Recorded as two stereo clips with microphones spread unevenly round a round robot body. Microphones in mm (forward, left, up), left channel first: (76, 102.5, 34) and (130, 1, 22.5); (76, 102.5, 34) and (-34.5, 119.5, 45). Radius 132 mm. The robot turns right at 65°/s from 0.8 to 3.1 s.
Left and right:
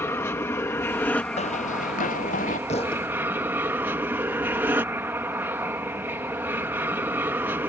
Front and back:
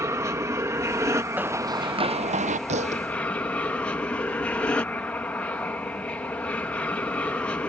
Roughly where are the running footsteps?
Left.